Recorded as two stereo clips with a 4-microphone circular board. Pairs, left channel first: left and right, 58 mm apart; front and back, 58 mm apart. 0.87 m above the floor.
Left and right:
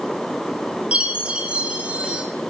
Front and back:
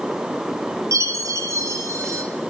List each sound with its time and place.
0.9 s a chime: 160° right, 1.5 m